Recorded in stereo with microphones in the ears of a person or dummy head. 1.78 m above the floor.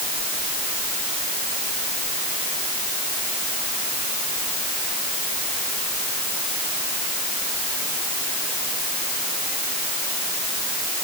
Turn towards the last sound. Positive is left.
No sound to turn to.